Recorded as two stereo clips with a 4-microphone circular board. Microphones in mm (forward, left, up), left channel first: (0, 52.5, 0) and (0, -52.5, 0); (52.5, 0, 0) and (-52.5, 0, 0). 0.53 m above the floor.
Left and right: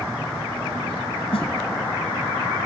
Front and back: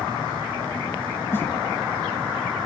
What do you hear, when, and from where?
1.3 s a snare drum: 70° left, 2 m